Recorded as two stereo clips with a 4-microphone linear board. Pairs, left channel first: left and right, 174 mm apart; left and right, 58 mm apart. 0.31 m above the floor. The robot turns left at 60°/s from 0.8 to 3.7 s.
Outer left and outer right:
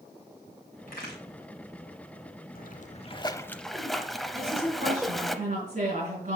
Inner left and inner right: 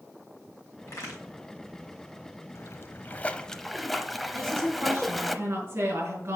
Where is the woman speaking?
40° right (ahead or behind), 4.5 m.